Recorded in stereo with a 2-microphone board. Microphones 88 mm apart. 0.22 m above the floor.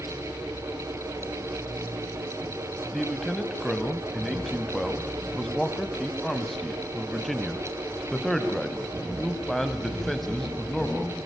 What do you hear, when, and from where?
2.9 s a man speaking: centre (ahead or behind), 1.6 m